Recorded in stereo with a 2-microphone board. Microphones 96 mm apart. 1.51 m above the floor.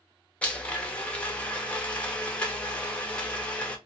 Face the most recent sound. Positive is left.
turn(degrees=15)  # may be behind; listen again after turning